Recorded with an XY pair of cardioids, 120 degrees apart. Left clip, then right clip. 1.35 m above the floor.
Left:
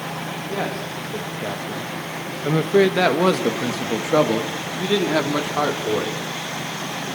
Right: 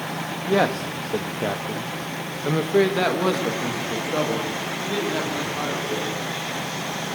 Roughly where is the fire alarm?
No fire alarm in this recording.